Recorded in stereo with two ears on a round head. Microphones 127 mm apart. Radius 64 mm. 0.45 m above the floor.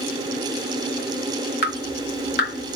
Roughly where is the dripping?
Left.